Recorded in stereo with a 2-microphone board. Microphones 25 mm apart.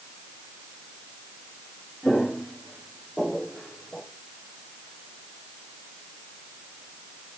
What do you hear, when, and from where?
2.0 s footsteps: 15° left (ahead or behind), 5.5 m; by 4.0 s 10° left (ahead or behind), 3.5 m